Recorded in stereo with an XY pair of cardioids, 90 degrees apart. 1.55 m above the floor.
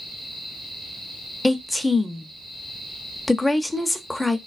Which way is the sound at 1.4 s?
10° left.